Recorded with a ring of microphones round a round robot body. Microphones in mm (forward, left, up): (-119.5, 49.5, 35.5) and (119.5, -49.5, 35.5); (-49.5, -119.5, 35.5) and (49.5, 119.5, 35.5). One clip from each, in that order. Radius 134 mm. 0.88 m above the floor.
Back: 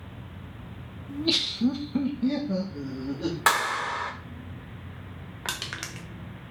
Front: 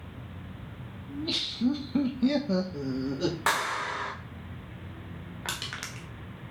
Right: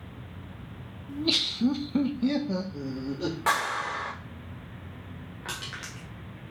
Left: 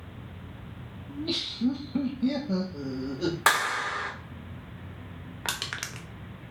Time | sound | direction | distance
1.1 | laughter | 155° right | 1.3 m
3.5 | a clap | 95° left | 2.5 m
5.5 | crushing | 75° left | 1.3 m